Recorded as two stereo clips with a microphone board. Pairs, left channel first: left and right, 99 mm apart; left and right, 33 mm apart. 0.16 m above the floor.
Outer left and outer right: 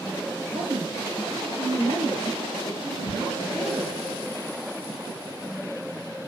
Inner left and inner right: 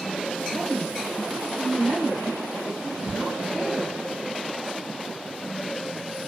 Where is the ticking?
60° right (ahead or behind), 6.5 m.